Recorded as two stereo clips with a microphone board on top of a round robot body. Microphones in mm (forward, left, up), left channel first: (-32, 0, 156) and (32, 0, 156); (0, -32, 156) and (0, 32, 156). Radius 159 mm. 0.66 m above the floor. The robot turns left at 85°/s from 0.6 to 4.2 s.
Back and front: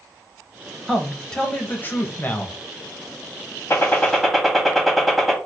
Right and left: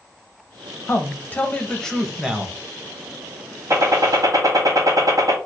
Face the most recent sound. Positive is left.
turn(degrees=90)